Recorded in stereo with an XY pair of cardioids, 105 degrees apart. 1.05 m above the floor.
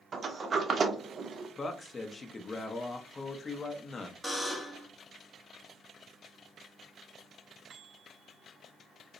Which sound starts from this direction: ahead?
A buzzer, at 4.2 s.